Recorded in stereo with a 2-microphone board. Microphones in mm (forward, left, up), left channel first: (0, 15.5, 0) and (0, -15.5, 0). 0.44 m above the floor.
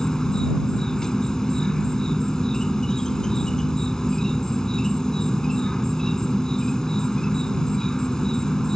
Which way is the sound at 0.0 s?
20° left (ahead or behind).